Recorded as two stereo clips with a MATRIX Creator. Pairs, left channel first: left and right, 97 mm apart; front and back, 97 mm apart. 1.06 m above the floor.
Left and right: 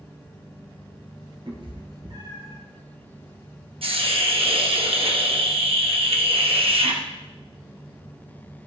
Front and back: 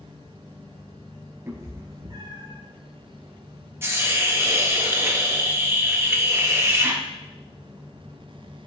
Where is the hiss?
115° right, 1.1 m.